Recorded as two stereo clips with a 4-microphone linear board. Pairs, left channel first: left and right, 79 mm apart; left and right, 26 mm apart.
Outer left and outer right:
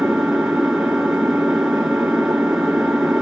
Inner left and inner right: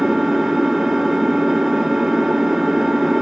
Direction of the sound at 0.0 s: 5° right (ahead or behind).